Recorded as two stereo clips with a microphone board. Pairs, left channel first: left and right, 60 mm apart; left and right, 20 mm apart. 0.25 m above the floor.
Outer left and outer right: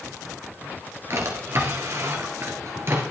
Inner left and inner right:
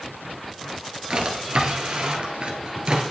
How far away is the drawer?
About 1.9 m.